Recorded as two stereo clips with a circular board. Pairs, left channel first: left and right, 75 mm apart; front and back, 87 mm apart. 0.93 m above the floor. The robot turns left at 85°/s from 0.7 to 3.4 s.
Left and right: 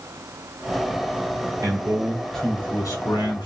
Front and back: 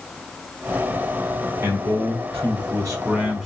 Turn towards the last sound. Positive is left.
turn(degrees=85)